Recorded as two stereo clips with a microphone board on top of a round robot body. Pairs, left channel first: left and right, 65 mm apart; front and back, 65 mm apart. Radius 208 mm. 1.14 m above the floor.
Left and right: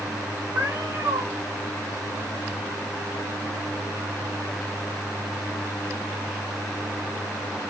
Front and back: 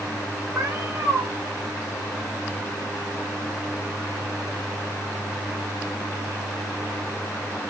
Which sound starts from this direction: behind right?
A cat meowing, at 0.6 s.